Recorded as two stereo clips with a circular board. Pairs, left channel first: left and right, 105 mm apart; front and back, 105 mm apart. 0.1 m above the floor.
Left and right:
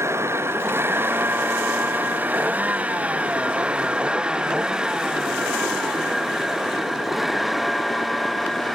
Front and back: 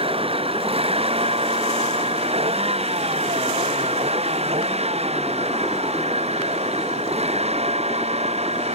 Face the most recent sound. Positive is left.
turn(degrees=180)